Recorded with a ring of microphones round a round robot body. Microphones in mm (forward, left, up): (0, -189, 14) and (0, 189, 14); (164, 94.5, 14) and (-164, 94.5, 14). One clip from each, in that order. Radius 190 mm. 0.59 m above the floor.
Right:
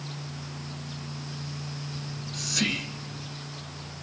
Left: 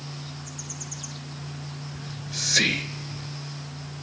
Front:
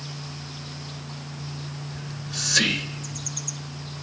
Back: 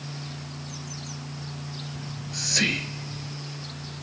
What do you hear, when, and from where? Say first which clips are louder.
1.9 s whispering: left 7 dB, front 3 dB; 50° left, 2.5 m